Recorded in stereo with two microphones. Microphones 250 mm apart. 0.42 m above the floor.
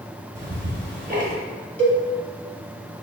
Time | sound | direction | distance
0.3 | ticking | 35° right (ahead or behind) | 1.0 m
1.8 | a cowbell | 5° left (ahead or behind) | 0.9 m